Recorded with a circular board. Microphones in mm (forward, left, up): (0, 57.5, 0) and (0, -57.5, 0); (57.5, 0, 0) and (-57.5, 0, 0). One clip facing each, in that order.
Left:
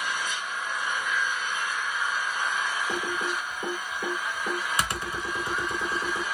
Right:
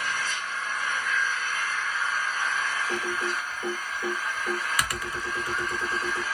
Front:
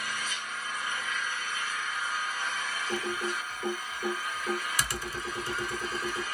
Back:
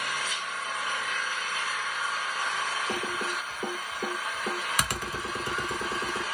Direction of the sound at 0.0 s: 165° left.